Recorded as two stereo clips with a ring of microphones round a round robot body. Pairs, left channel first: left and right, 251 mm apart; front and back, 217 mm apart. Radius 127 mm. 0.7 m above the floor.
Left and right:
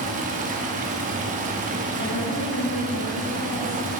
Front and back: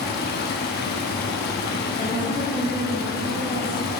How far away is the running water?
About 0.8 m.